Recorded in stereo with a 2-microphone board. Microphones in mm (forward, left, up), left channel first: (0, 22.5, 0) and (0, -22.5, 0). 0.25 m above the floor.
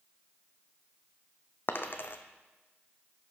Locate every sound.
1.7 s a dropped coin: 50° left (ahead or behind), 0.6 m